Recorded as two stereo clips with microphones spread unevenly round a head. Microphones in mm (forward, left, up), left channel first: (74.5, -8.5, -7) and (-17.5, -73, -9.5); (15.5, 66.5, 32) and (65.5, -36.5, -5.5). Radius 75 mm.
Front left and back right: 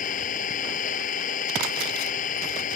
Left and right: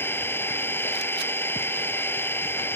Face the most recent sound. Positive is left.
turn(degrees=45)